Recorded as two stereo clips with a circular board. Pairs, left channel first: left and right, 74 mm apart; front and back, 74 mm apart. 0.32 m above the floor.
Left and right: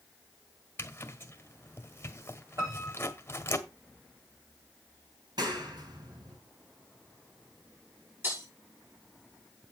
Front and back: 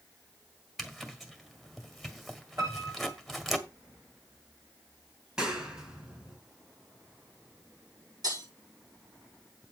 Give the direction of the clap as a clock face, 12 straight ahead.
3 o'clock.